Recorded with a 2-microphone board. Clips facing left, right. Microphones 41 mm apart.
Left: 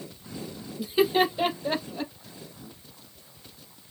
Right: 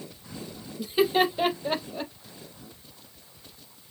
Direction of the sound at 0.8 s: Centre (ahead or behind).